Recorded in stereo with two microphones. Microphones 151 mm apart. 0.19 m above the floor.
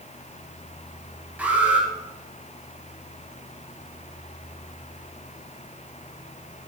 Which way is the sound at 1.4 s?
10° right (ahead or behind).